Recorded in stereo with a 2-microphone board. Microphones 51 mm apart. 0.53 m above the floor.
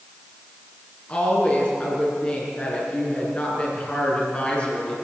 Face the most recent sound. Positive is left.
turn(degrees=25)  # may be behind; listen again after turning